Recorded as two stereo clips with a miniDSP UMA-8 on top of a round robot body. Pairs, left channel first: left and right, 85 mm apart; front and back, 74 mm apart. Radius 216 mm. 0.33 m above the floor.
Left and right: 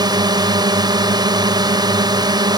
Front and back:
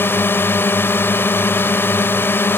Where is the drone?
60° right.